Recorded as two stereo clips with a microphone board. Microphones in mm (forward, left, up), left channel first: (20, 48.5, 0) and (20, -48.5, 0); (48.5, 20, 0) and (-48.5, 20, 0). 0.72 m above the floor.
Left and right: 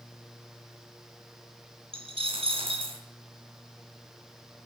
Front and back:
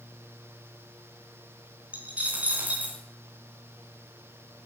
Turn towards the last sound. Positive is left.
turn(degrees=-105)